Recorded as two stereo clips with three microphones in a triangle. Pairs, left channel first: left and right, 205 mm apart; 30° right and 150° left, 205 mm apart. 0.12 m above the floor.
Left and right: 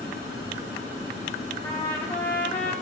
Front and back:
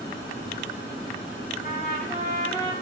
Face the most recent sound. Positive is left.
turn(degrees=15)